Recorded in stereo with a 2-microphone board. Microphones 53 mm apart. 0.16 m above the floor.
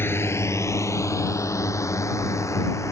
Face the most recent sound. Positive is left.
turn(degrees=70)  # may be behind; listen again after turning